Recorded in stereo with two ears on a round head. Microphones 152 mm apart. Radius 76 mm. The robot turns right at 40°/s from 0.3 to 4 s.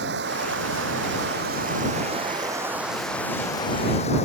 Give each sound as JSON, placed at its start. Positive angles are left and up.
{"t": 0.0, "sound": "running water", "azimuth_deg": -110}